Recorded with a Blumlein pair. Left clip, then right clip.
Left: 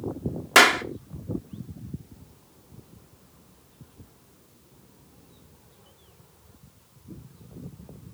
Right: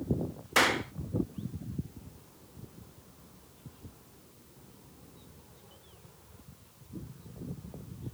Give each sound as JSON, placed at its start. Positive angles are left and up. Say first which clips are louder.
{"t": 0.6, "sound": "a clap", "louder": "left 9 dB", "azimuth_deg": 50, "distance_m": 1.1}